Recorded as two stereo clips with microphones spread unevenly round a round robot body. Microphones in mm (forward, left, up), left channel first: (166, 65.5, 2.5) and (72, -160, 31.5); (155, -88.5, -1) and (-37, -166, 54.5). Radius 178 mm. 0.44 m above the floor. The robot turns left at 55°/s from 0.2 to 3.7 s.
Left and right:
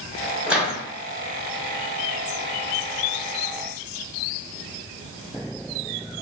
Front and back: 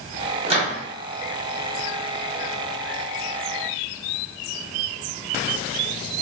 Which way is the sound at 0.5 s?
150° left.